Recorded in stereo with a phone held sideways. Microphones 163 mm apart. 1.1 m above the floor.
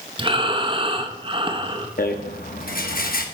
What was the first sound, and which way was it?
Breathing, 35° right (ahead or behind).